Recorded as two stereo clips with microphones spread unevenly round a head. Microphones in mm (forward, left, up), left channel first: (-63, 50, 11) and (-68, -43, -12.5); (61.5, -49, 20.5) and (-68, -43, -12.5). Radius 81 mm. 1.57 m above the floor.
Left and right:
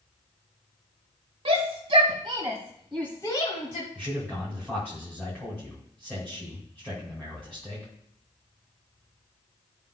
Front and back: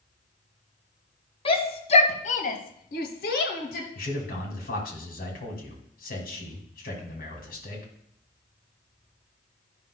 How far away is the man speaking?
About 2.5 m.